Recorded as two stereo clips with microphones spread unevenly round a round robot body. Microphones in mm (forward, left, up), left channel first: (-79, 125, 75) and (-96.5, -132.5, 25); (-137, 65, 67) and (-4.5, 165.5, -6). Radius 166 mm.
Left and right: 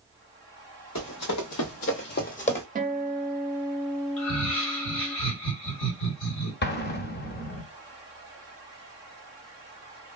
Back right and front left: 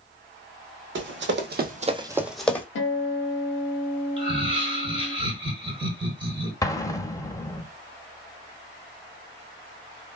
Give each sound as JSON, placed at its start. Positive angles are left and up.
{"t": 0.9, "sound": "running footsteps", "azimuth_deg": 50, "distance_m": 1.2}
{"t": 2.8, "sound": "a guitar", "azimuth_deg": -130, "distance_m": 0.8}
{"t": 4.2, "sound": "laughter", "azimuth_deg": 60, "distance_m": 1.7}
{"t": 6.6, "sound": "an explosion", "azimuth_deg": 140, "distance_m": 0.9}